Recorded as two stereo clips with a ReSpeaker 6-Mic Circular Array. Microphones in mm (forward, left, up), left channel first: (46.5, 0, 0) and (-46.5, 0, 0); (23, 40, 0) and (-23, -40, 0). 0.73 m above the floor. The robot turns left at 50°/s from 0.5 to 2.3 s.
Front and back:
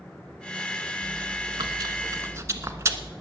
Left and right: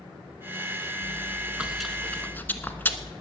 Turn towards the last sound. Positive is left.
turn(degrees=125)